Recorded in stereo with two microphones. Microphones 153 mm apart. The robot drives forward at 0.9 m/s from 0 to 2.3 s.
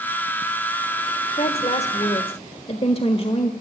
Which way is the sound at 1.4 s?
45° left (ahead or behind).